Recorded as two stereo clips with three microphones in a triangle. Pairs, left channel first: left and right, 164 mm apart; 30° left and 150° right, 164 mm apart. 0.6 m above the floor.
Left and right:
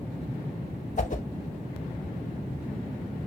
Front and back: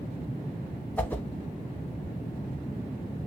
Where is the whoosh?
105° left, 0.6 m.